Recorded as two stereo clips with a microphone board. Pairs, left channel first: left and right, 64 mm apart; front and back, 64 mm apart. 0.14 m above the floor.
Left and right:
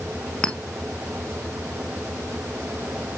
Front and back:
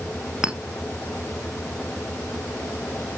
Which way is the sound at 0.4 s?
135° left.